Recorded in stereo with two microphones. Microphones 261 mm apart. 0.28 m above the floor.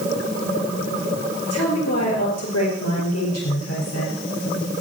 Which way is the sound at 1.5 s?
75° left (ahead or behind).